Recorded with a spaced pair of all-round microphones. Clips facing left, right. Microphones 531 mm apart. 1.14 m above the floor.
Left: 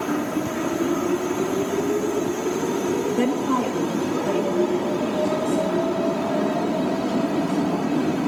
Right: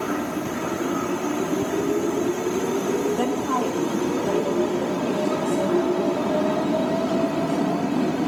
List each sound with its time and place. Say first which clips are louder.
3.2 s a woman speaking: left 2 dB; 45° left (ahead or behind), 1.7 m